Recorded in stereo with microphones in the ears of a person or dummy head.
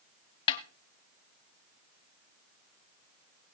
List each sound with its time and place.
0.5 s a snare drum: 30° left (ahead or behind), 1.3 m